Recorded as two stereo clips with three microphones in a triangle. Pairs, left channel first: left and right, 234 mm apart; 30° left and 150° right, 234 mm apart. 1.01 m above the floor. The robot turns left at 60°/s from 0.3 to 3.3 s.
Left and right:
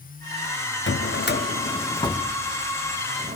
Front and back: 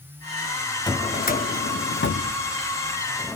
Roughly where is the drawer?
Left.